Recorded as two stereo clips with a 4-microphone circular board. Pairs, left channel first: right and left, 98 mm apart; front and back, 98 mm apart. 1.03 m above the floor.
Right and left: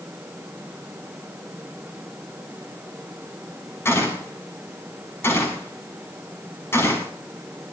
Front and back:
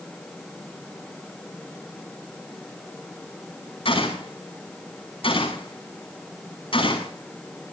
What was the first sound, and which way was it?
A gunshot, 25° right.